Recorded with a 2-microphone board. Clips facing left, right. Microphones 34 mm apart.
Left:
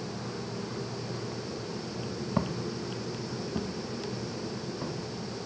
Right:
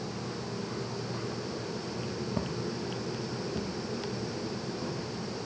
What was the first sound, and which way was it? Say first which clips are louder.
Footsteps: left 2 dB; 75° left (ahead or behind).